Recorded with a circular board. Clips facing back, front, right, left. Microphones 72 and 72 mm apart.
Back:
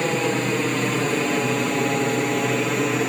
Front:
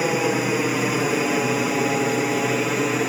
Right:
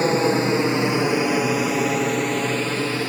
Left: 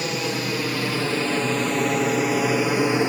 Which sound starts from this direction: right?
An aircraft, at 0.0 s.